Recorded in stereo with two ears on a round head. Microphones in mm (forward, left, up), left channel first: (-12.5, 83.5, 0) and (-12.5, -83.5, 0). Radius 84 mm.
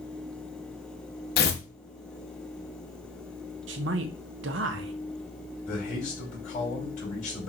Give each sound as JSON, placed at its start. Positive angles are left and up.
{"t": 1.4, "sound": "tearing paper", "side_deg": 55, "distance_m": 0.8}
{"t": 3.7, "sound": "a man speaking", "side_deg": -70, "distance_m": 0.7}
{"t": 5.7, "sound": "a man speaking", "side_deg": 45, "distance_m": 3.0}